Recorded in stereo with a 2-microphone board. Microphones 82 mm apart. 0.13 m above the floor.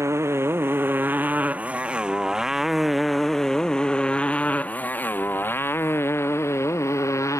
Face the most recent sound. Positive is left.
turn(degrees=40)  # may be behind; listen again after turning